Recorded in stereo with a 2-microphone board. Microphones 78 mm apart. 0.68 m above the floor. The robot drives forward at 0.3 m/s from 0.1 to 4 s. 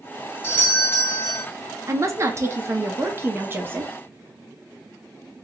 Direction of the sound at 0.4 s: 25° left (ahead or behind).